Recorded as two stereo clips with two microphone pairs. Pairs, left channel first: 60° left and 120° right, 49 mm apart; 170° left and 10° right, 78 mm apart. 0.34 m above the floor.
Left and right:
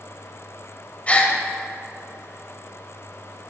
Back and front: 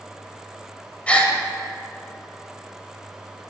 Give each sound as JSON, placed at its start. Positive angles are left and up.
{"t": 1.1, "sound": "a gasp", "azimuth_deg": 105, "distance_m": 1.7}